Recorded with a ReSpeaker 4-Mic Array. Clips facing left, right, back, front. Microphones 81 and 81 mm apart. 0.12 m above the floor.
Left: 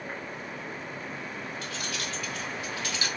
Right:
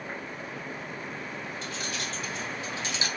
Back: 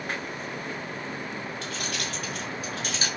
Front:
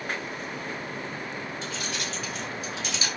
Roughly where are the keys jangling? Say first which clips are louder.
Even, even; behind right.